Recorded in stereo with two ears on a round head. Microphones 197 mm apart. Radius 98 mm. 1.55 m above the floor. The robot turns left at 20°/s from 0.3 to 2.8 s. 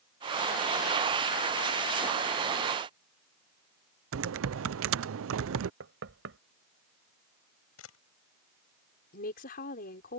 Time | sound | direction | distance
4.1 | typing on a keyboard | 65° right (ahead or behind) | ?
5.8 | knocking | 60° right (ahead or behind) | ?
7.8 | a camera shutter | 75° left (ahead or behind) | ?
9.1 | a woman speaking | 45° left (ahead or behind) | ?